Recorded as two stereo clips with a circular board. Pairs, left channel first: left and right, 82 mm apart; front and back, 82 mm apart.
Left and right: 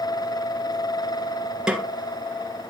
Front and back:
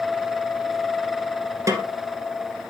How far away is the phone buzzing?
No phone buzzing in this recording.